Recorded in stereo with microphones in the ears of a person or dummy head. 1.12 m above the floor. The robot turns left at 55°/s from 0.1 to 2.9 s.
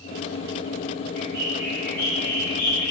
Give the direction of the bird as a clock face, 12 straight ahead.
5 o'clock.